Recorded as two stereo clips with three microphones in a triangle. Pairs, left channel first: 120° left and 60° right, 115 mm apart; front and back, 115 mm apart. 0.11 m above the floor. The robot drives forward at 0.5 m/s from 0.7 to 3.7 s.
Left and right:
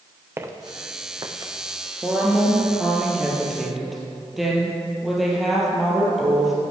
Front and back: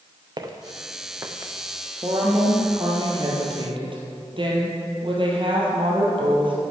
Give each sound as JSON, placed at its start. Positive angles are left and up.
{"t": 0.4, "sound": "footsteps", "azimuth_deg": -130, "distance_m": 1.2}
{"t": 2.0, "sound": "a woman speaking", "azimuth_deg": -130, "distance_m": 1.9}